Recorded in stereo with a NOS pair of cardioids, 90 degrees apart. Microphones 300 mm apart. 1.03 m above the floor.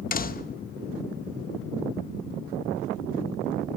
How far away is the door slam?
About 1.0 m.